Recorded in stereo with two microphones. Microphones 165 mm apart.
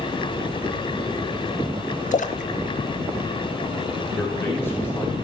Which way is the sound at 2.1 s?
50° left (ahead or behind).